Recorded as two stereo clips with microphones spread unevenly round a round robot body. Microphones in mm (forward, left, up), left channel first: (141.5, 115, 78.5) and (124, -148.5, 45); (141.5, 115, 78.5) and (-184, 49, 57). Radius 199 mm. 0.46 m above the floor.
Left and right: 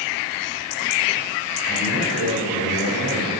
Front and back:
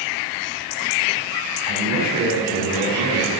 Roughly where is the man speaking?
Behind right.